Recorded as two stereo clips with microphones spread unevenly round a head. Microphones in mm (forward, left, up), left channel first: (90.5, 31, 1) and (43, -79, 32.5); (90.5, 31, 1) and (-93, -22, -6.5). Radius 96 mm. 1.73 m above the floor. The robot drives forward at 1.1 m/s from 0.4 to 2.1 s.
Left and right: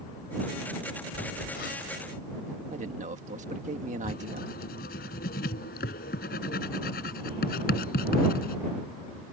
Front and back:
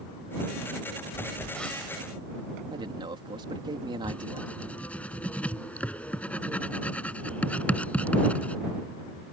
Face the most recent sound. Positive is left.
turn(degrees=100)